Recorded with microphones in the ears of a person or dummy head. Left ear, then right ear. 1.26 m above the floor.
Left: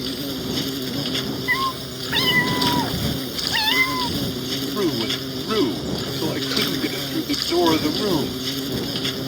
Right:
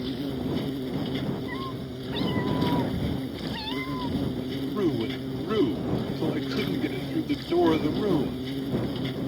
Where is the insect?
55° left (ahead or behind).